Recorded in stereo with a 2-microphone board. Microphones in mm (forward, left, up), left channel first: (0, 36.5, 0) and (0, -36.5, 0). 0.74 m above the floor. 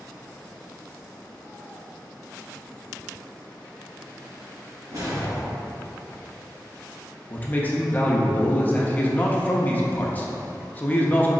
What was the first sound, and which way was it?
A whoosh, 55° right (ahead or behind).